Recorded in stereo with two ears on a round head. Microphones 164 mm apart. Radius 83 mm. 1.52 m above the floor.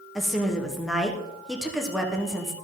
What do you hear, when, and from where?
0.1 s a woman speaking: centre (ahead or behind), 1.2 m